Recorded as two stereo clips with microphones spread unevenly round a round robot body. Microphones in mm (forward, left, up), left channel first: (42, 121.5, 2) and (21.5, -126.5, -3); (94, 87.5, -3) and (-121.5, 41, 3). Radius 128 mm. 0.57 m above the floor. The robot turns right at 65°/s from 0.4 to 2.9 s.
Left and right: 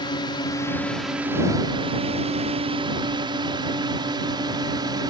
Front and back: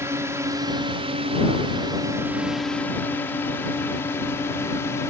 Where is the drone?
130° left; by 5.1 s 50° right.